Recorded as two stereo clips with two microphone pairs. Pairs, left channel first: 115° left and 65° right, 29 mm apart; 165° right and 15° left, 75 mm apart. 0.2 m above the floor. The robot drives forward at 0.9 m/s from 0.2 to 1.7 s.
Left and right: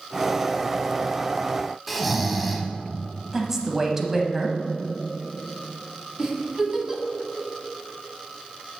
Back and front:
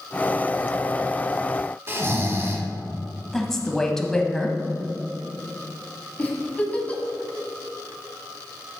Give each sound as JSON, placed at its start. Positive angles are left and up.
{"t": 1.9, "sound": "snoring", "azimuth_deg": 20, "distance_m": 0.9}
{"t": 3.3, "sound": "a woman speaking", "azimuth_deg": -95, "distance_m": 1.0}
{"t": 6.2, "sound": "a giggle", "azimuth_deg": -110, "distance_m": 1.3}